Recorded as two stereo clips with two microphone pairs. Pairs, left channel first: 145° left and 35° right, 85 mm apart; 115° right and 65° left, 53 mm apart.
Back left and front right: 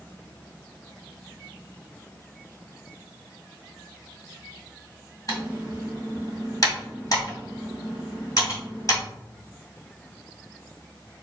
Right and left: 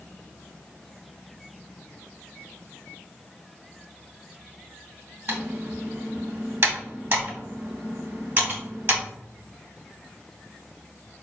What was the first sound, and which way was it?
Typing on a keyboard, 100° left.